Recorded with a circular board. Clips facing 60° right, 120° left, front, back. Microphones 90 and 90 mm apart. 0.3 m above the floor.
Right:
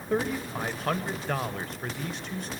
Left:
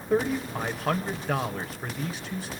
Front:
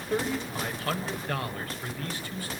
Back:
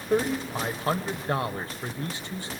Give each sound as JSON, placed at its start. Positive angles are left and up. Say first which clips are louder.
{"t": 0.1, "sound": "a man speaking", "louder": "left 3 dB, back 4 dB", "azimuth_deg": -155, "distance_m": 1.2}